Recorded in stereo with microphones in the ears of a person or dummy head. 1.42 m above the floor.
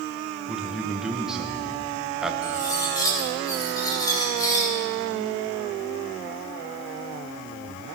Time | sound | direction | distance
0.5 | a man speaking | 5° right (ahead or behind) | 1.2 m
2.4 | cutlery clinking | 20° left (ahead or behind) | 3.5 m